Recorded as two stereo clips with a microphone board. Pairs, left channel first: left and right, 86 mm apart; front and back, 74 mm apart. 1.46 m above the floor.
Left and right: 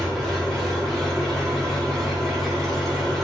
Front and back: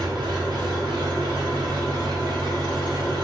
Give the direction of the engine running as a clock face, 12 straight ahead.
6 o'clock.